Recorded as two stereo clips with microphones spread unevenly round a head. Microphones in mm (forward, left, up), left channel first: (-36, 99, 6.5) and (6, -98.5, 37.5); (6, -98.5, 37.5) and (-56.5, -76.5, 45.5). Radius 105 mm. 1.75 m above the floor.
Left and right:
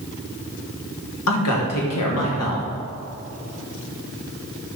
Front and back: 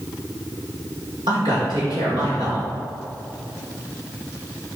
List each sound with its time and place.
1.3 s a man speaking: 110° left, 1.8 m